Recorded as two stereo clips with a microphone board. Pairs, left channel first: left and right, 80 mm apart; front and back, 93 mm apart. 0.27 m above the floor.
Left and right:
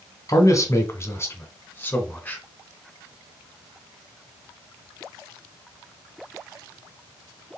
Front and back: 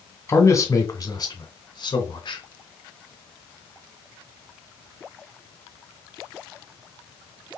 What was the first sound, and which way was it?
A man speaking, 55° left.